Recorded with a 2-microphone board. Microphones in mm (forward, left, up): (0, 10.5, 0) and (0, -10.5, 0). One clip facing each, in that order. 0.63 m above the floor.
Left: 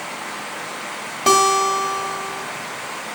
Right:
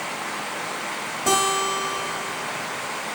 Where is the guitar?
75° left (ahead or behind), 2 m.